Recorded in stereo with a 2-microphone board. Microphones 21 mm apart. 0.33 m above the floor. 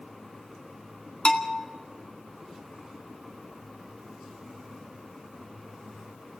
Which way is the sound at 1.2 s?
60° left (ahead or behind).